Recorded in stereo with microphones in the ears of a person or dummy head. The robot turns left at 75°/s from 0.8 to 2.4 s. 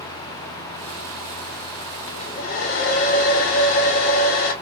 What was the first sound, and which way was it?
A hair dryer, 30° left (ahead or behind).